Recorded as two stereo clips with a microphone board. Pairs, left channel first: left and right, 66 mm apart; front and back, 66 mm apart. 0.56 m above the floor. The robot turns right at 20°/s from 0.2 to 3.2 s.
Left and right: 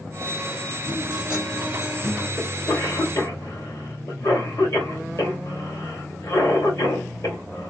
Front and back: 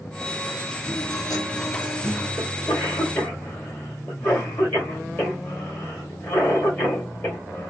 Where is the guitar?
25° right, 1.6 m; by 2.3 s 5° left, 1.6 m.